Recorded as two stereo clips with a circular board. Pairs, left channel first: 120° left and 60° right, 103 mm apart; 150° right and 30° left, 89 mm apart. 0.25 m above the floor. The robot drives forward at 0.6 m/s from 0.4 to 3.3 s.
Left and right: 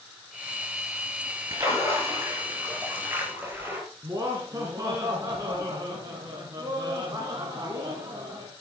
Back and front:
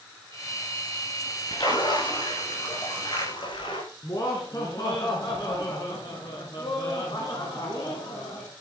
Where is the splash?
120° right, 5 m; by 3.8 s 130° right, 5.5 m.